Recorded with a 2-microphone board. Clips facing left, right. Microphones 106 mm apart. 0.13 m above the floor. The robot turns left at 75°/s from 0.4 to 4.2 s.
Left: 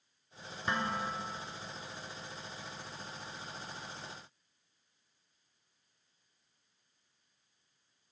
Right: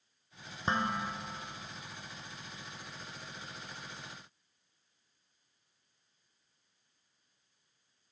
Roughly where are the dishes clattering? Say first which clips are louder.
Right 2 dB; behind right.